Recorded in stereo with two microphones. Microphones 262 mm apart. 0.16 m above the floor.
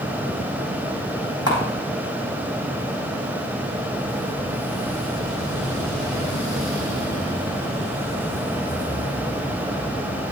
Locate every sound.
1.5 s a camera shutter: 60° left (ahead or behind), 6.5 m